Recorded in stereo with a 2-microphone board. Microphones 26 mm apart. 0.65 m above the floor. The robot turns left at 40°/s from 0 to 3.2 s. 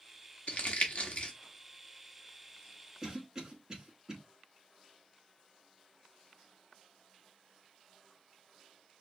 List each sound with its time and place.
0.5 s crumpling: 60° left (ahead or behind), 1.0 m; by 1.3 s 55° left (ahead or behind), 1.0 m
3.0 s a cough: 25° right (ahead or behind), 1.3 m; by 4.2 s 30° right (ahead or behind), 1.3 m